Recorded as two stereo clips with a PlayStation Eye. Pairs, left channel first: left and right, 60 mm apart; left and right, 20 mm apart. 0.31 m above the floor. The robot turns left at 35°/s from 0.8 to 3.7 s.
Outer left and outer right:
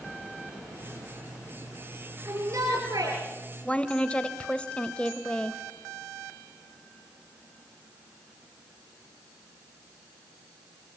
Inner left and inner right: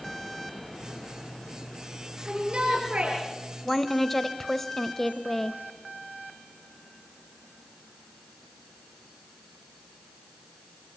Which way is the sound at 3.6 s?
20° left (ahead or behind).